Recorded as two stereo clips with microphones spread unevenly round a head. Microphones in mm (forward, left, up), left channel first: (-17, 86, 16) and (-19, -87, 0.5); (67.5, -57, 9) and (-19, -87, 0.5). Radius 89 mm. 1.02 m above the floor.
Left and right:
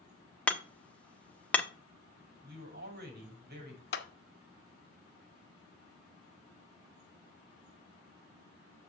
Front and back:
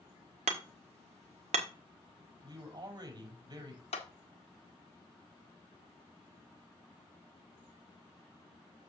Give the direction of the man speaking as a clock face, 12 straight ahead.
4 o'clock.